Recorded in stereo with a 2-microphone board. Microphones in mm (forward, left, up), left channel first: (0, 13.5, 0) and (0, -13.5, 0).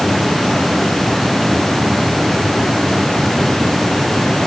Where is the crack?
No crack in this recording.